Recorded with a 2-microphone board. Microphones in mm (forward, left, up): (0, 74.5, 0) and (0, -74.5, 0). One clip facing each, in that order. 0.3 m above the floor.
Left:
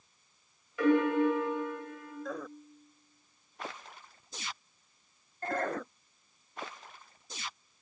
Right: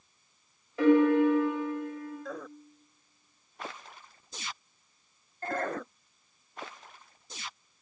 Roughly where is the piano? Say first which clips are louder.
Right 4 dB; right.